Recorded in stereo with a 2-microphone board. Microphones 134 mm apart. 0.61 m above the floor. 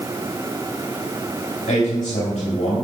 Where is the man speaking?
55° left (ahead or behind), 3.5 m.